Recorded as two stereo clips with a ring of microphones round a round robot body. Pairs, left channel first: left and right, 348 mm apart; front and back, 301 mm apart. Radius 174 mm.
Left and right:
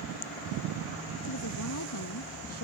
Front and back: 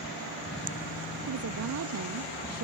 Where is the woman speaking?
145° left; by 2.6 s 140° left.